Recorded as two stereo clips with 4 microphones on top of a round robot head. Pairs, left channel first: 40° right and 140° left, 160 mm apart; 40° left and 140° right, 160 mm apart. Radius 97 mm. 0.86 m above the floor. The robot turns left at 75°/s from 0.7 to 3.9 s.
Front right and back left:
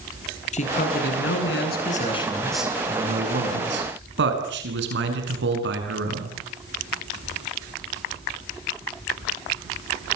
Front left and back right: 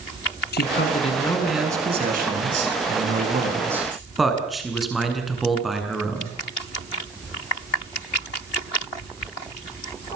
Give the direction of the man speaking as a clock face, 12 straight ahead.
12 o'clock.